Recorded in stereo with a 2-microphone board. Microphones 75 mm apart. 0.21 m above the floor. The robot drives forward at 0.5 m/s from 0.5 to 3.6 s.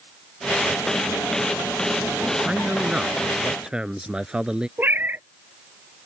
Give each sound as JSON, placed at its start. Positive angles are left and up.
{"t": 2.4, "sound": "a man speaking", "side_deg": -15}
{"t": 4.8, "sound": "a cat meowing", "side_deg": -30}